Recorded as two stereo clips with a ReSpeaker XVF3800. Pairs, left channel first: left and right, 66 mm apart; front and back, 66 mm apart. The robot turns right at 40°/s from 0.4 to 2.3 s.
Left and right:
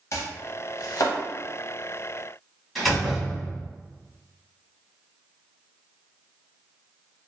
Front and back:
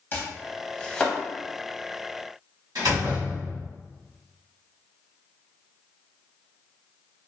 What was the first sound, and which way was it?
Chopping, 55° left.